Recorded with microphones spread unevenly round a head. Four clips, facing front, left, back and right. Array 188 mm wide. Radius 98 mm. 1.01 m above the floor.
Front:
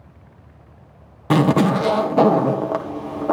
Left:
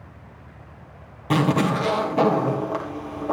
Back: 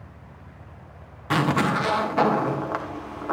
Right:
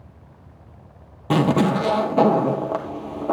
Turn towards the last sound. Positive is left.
turn(degrees=-30)